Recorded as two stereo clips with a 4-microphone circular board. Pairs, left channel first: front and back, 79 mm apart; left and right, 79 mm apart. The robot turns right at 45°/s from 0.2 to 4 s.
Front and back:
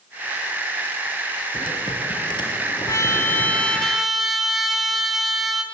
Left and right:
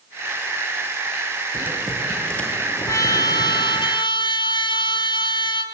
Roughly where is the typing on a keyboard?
Ahead.